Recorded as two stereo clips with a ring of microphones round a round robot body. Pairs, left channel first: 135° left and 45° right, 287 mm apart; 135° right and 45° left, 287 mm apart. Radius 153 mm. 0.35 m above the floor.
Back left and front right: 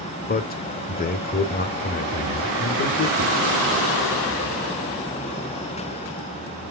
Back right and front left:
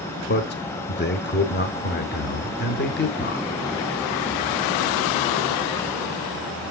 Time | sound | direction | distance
0.3 | a man speaking | 175° right | 1.1 m